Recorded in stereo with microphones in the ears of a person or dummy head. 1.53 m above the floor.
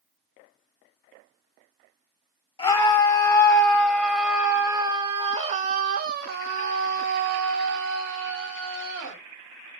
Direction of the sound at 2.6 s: 25° left (ahead or behind).